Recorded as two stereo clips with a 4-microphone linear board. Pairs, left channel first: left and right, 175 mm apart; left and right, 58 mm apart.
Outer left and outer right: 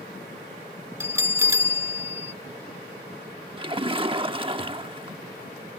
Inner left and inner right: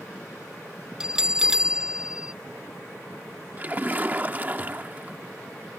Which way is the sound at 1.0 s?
15° right (ahead or behind).